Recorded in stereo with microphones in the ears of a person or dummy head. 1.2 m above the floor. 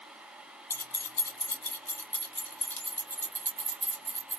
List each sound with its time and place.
0.7 s keys jangling: 15° left (ahead or behind), 0.6 m; by 4.4 s 10° left (ahead or behind), 3 m